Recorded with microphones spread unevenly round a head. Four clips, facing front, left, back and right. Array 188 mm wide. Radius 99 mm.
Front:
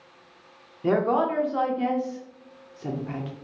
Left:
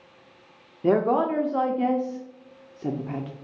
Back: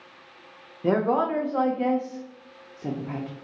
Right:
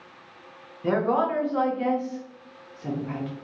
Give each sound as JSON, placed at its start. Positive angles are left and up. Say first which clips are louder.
{"t": 0.8, "sound": "a woman speaking", "louder": "left 2 dB, even", "azimuth_deg": 100, "distance_m": 0.7}